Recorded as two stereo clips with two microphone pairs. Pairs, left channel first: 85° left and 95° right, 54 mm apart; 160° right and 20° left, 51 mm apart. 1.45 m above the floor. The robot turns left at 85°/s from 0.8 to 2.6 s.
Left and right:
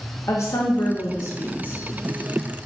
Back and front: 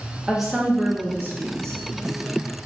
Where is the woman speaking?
100° left, 0.6 m; by 1.8 s 20° left, 0.6 m.